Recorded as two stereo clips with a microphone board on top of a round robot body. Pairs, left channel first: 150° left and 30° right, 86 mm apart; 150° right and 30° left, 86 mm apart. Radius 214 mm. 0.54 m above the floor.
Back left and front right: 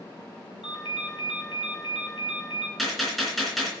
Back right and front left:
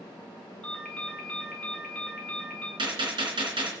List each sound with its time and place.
0.6 s a ringtone: 135° left, 3.5 m
2.8 s a gunshot: 60° left, 3.5 m